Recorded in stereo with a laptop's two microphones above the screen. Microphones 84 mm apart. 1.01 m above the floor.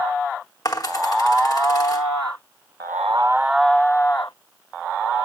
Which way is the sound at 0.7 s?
50° left (ahead or behind).